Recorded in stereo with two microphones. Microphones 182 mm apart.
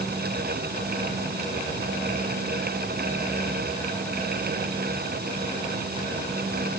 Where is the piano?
No piano in this recording.